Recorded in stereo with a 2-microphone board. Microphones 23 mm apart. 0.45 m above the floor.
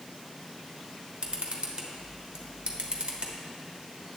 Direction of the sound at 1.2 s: 55° right (ahead or behind).